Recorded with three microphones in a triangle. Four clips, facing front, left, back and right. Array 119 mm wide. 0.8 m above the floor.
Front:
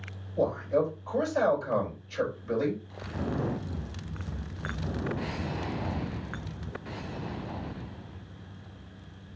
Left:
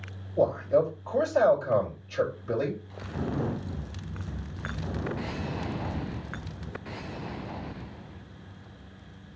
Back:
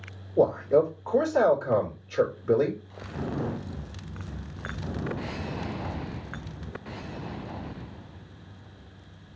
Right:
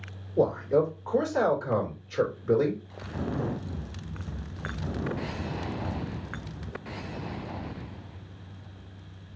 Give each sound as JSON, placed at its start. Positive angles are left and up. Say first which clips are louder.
{"t": 0.4, "sound": "a man speaking", "louder": "even, back 5 dB", "azimuth_deg": -150, "distance_m": 3.0}